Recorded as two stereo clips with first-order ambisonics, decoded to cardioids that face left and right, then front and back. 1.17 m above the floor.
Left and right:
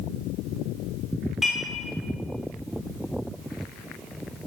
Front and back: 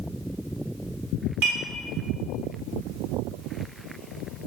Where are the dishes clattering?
Straight behind, 2.5 m.